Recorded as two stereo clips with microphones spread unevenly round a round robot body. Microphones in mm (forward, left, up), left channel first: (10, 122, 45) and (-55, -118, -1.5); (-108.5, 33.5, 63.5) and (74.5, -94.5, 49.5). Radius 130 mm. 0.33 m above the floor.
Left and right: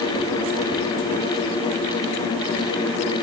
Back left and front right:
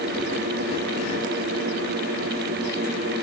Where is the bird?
I don't hear a bird.